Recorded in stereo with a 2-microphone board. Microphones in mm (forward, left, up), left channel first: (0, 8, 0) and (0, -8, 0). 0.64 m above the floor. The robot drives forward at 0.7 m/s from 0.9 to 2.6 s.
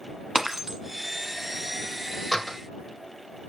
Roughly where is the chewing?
No chewing in this recording.